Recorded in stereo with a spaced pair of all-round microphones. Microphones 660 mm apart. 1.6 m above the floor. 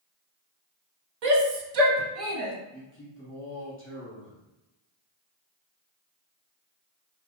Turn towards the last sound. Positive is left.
turn(degrees=20)  # may be behind; listen again after turning